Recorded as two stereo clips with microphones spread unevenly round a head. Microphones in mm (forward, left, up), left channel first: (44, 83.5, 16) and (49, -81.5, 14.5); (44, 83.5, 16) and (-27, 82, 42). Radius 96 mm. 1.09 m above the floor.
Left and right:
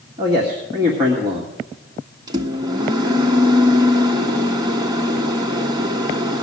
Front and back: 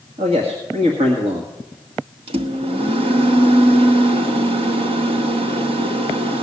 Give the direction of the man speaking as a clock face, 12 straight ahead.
5 o'clock.